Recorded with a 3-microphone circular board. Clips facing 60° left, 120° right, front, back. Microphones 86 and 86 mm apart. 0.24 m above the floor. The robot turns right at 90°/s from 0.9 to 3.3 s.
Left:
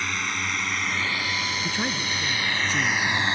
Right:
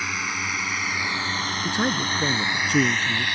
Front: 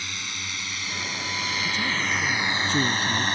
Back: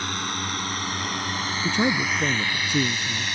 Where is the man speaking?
160° left; by 3.2 s 55° right.